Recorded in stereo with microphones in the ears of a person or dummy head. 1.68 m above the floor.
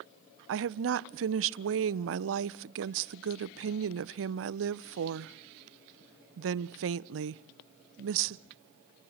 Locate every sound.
0.5 s a woman speaking: 65° right (ahead or behind), 0.9 m